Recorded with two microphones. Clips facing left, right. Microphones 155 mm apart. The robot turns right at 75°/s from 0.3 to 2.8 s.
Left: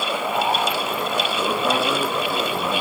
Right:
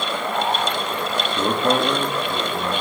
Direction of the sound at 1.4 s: 60° right.